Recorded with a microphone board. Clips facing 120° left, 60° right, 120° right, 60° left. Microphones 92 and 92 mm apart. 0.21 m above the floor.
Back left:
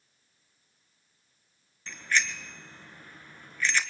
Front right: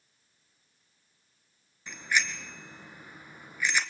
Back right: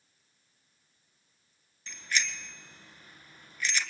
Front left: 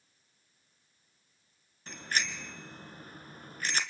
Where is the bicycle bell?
15° left, 2 m.